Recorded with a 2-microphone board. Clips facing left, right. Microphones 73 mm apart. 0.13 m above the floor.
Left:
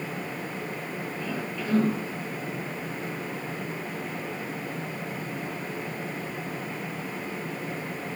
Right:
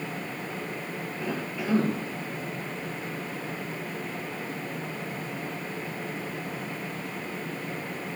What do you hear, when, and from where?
1.2 s a cough: 15° right (ahead or behind), 4.5 m